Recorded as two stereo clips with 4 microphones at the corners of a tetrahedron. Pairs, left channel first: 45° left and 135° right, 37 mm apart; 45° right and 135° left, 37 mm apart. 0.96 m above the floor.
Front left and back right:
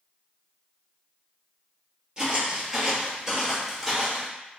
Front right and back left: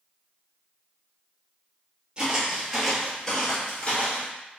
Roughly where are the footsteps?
Behind.